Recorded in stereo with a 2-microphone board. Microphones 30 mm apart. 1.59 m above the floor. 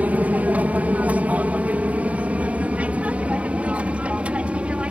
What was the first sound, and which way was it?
An aircraft, 60° right (ahead or behind).